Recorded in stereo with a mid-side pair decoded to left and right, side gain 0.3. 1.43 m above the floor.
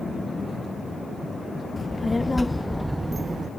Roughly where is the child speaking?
Ahead left.